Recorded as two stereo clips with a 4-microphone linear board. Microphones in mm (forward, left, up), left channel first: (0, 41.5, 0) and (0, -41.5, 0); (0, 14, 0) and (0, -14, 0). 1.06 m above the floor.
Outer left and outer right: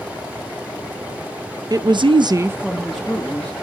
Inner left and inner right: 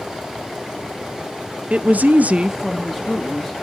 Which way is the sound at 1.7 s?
50° right (ahead or behind).